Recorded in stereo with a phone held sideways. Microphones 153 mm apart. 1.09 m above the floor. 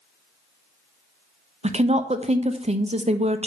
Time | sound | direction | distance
1.6 | a woman speaking | 45° right (ahead or behind) | 0.5 m